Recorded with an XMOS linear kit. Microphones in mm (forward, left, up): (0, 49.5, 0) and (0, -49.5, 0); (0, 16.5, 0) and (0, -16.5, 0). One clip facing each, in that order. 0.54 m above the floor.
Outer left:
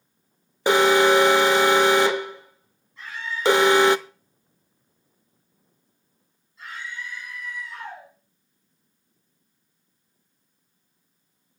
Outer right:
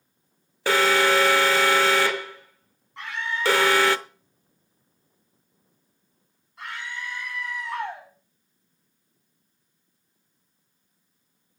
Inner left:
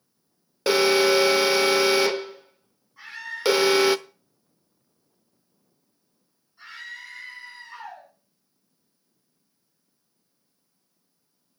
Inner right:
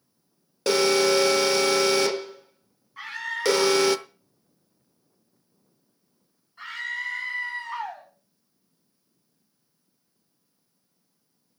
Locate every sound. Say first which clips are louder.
0.7 s an alarm: outer left 4 dB, inner left 2 dB; 20° left (ahead or behind), 0.8 m
3.0 s a scream: outer right 2 dB, inner right 4 dB; 65° right (ahead or behind), 4 m